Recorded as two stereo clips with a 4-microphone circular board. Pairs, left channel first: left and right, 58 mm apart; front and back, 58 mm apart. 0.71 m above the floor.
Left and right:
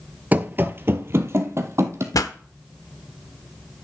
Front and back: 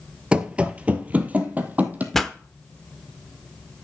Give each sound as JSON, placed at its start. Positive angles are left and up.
{"t": 0.3, "sound": "running footsteps", "azimuth_deg": -120, "distance_m": 0.7}
{"t": 2.1, "sound": "a pop", "azimuth_deg": 85, "distance_m": 0.8}